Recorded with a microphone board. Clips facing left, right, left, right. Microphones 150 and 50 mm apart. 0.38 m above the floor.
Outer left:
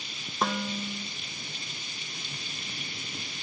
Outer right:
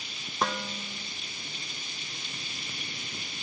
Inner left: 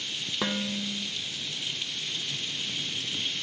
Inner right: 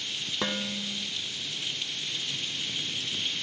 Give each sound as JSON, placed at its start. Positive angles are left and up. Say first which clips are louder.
{"t": 0.4, "sound": "dishes clattering", "louder": "outer left 2 dB, inner left 2 dB", "side_deg": 0, "distance_m": 0.8}